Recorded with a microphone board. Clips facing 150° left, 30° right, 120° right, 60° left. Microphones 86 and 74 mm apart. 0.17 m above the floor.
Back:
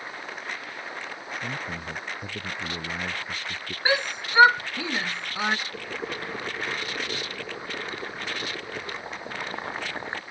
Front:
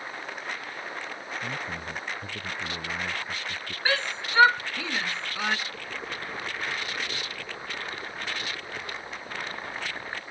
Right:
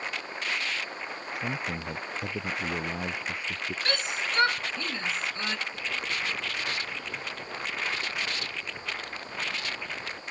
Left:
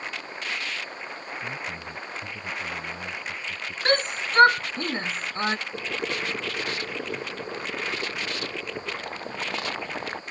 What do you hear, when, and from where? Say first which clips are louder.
1.4 s a man speaking: back 1 dB, right 3 dB; 130° right; by 3.8 s 140° right
3.9 s a shout: back 3 dB, left 8 dB; 80° left
5.7 s boiling: back 3 dB, left 3 dB; 85° left